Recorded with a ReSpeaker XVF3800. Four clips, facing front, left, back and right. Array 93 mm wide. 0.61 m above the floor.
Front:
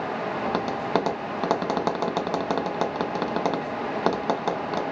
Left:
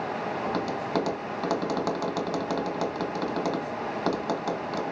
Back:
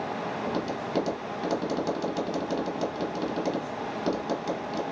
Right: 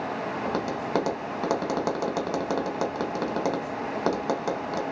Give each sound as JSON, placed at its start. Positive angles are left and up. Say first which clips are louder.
{"t": 0.5, "sound": "tapping", "louder": "even, front 4 dB", "azimuth_deg": -15, "distance_m": 1.2}